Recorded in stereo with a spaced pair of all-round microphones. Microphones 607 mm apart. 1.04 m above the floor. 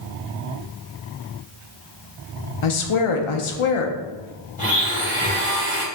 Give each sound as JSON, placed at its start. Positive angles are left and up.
{"t": 2.6, "sound": "a woman speaking", "side_deg": 60, "distance_m": 0.5}
{"t": 4.6, "sound": "a blender", "side_deg": 15, "distance_m": 1.3}